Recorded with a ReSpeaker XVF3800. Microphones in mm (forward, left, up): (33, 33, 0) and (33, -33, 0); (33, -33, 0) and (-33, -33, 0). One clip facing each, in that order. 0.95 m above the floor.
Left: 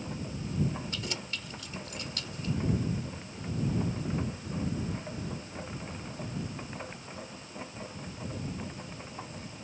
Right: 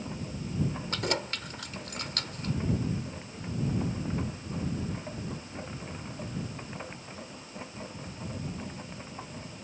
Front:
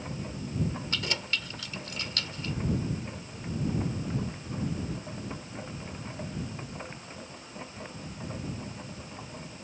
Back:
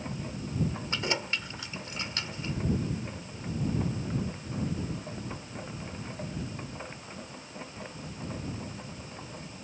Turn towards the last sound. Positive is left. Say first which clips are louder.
# right 6 dB, back 2 dB
turn(degrees=-115)